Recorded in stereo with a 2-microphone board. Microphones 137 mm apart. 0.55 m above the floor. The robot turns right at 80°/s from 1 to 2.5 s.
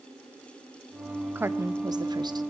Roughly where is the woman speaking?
Behind right.